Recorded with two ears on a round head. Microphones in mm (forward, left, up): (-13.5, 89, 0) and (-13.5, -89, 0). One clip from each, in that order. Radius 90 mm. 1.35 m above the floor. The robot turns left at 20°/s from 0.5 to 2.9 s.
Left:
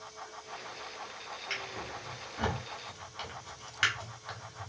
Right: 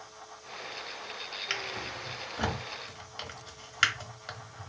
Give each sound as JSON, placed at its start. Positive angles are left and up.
{"t": 1.5, "sound": "a drawer", "side_deg": -40, "distance_m": 0.9}